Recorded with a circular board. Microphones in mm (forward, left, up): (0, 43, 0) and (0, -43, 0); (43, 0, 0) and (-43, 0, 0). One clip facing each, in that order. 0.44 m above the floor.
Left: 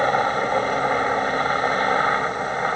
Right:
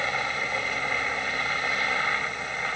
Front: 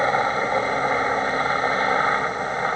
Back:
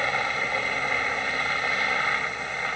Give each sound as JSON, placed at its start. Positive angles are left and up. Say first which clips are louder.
{"t": 0.0, "sound": "a helicopter", "louder": "left 10 dB, front 7 dB", "azimuth_deg": 50}